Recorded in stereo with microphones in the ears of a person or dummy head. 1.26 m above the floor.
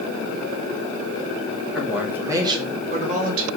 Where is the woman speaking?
Centre (ahead or behind), 3 m; by 3.5 s 55° right (ahead or behind), 3 m.